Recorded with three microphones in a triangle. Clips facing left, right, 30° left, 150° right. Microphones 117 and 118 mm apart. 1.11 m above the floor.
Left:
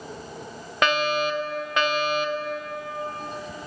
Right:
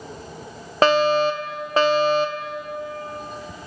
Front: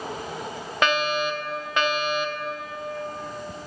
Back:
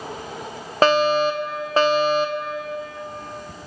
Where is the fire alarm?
120° right, 1.5 m.